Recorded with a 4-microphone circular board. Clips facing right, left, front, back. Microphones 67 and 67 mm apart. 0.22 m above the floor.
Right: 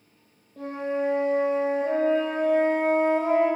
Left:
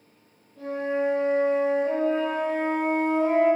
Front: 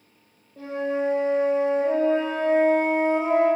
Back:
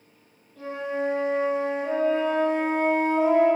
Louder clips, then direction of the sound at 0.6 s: Left 1 dB, front 3 dB; 60° right.